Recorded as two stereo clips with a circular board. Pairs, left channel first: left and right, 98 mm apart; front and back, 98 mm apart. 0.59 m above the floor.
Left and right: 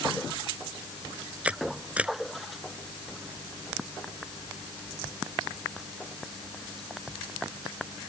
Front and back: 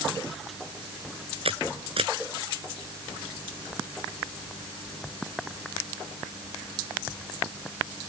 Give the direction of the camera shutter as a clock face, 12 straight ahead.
6 o'clock.